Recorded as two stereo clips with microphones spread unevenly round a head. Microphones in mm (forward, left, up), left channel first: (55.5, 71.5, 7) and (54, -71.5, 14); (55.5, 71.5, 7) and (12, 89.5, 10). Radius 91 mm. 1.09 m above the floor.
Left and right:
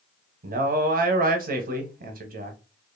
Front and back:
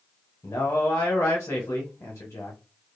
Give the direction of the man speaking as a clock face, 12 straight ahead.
2 o'clock.